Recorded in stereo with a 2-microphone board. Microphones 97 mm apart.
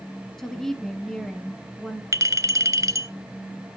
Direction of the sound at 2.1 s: 35° right (ahead or behind).